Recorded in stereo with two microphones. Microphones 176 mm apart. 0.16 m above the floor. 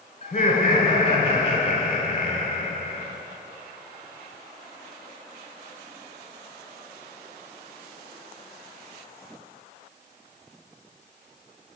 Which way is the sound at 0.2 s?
35° left (ahead or behind).